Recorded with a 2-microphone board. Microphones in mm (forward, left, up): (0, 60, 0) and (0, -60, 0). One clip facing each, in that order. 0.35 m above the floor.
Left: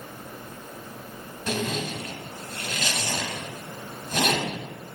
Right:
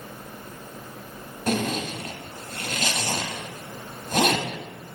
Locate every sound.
1.5 s a zipper: 50° right (ahead or behind), 0.5 m